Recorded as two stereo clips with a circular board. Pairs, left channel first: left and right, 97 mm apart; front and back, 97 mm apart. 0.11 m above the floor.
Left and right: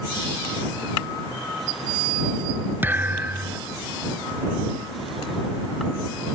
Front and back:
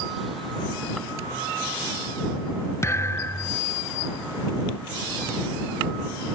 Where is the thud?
35° right.